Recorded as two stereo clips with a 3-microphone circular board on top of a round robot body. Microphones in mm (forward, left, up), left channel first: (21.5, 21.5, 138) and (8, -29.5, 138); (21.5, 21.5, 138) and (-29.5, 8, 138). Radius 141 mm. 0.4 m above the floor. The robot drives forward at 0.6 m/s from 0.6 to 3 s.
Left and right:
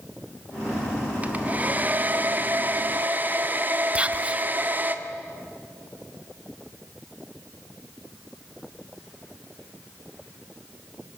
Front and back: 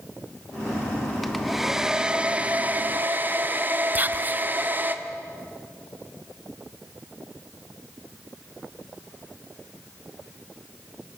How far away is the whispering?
About 0.9 m.